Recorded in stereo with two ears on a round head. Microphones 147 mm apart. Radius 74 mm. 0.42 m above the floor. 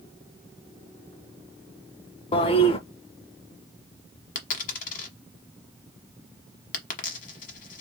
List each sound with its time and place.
2.3 s a toilet flushing: 35° left (ahead or behind), 0.8 m
4.3 s a dropped coin: 50° left (ahead or behind), 1.2 m